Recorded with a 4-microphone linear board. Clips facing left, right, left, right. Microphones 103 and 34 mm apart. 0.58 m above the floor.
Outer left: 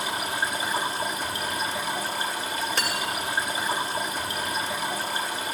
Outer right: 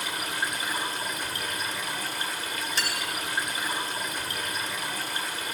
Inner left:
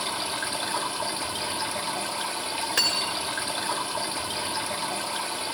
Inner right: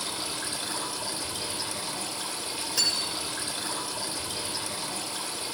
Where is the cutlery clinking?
55° left (ahead or behind), 0.9 m.